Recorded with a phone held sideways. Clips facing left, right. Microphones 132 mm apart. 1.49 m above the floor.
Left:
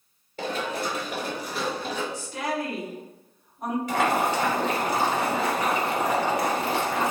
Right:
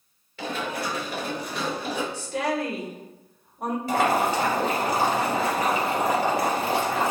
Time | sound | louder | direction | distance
0.4 | running footsteps | left 1 dB | 40° left (ahead or behind) | 1.8 m
2.1 | a woman speaking | right 3 dB | 70° right (ahead or behind) | 1.3 m
3.9 | boiling | right 2 dB | 35° right (ahead or behind) | 1.8 m